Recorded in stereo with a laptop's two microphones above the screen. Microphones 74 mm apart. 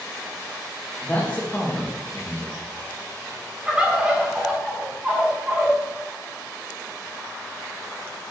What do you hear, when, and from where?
1.0 s a man speaking: 20° left (ahead or behind), 1.6 m
3.7 s a bird: 10° right (ahead or behind), 1.4 m